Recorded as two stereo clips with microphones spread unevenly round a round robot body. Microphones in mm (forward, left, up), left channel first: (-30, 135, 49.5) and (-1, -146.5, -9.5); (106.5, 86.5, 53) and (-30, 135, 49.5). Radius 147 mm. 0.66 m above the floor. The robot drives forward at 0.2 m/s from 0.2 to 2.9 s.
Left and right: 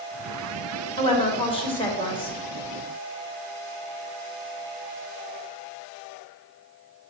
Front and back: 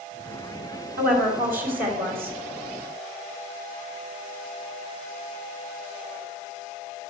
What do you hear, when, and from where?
1.0 s a woman speaking: 170° left, 3 m